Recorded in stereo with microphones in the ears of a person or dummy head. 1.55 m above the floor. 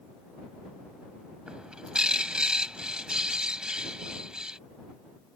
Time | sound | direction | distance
1.5 | a bird | centre (ahead or behind) | ?